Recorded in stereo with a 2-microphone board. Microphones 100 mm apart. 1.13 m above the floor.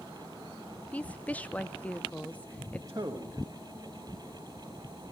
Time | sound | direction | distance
0.9 | a woman speaking | 15° left (ahead or behind) | 0.6 m
2.9 | a man speaking | 35° right (ahead or behind) | 1.4 m